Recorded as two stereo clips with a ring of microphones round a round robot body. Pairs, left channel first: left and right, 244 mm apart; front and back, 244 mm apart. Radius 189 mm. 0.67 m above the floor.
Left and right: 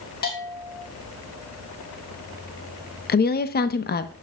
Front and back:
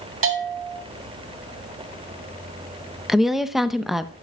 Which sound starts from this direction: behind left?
A bell, at 0.2 s.